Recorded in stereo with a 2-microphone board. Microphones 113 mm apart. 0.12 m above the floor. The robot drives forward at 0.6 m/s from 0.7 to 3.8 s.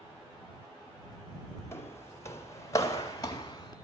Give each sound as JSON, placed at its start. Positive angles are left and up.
{"t": 1.7, "sound": "footsteps", "side_deg": 25, "distance_m": 1.8}